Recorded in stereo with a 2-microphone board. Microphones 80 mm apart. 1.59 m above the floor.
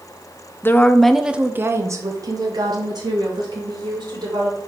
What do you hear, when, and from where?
0.6 s a woman speaking: 30° left (ahead or behind), 0.6 m; by 4.6 s 70° right (ahead or behind), 2 m